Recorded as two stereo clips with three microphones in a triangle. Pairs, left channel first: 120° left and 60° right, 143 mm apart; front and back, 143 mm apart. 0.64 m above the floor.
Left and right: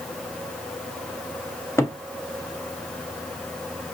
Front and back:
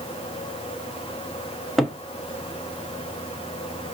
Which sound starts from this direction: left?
A cupboard door, at 1.8 s.